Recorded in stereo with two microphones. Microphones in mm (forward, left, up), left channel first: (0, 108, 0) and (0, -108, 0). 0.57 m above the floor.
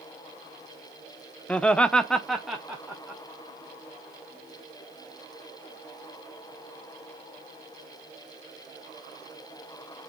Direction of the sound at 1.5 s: 5° left (ahead or behind).